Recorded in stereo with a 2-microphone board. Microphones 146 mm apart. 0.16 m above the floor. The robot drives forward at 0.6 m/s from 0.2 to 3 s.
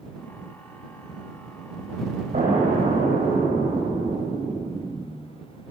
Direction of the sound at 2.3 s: 70° right (ahead or behind).